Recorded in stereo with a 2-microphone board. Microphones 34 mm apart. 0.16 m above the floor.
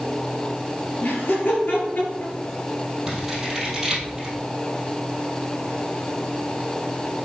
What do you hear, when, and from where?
1.0 s laughter: 55° left (ahead or behind), 3 m; by 2.3 s 45° left (ahead or behind), 2.5 m
3.1 s scissors: 10° right (ahead or behind), 2.5 m